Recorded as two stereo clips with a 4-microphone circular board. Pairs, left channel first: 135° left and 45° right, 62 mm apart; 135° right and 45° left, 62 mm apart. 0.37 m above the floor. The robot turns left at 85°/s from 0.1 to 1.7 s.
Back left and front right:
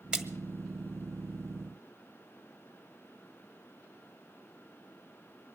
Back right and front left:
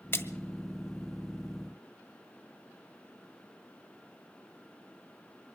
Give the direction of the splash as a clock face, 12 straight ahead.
4 o'clock.